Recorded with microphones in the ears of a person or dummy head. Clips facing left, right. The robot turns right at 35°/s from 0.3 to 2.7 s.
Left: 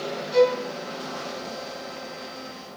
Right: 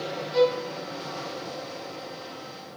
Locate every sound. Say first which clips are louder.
0.3 s a violin: left 3 dB; 85° left, 0.8 m; by 0.6 s 80° left, 0.8 m